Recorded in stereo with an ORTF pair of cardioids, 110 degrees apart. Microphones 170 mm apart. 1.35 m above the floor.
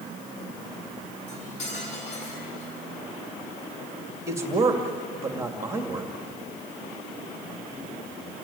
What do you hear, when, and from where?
1.3 s cutlery clinking: 45° left, 8.5 m
4.3 s a man speaking: 15° right, 2 m